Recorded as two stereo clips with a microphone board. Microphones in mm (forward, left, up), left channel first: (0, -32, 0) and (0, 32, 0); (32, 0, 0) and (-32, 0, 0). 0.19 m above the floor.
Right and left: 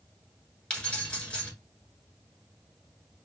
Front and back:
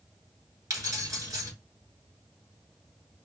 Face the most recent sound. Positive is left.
turn(degrees=-160)